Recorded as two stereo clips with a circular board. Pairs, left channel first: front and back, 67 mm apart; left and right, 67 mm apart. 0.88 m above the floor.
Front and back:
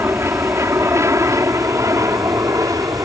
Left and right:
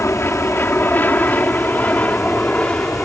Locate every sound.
0.0 s an aircraft: 140° left; by 3.1 s 165° left